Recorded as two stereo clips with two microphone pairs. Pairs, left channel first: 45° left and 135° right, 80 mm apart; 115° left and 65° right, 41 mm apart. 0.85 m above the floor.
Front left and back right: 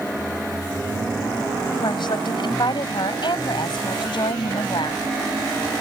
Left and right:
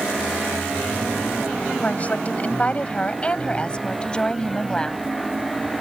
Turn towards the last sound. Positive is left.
turn(degrees=40)